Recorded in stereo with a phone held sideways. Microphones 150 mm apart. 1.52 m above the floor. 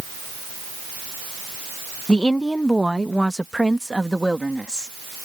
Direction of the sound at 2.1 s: 5° left (ahead or behind).